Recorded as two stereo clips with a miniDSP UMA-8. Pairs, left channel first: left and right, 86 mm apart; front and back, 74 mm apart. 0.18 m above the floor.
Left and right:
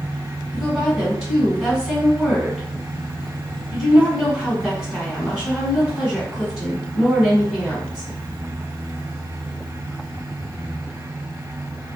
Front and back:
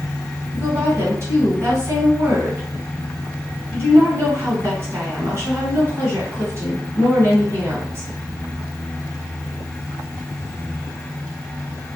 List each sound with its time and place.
0.5 s a woman speaking: 165° right, 1.7 m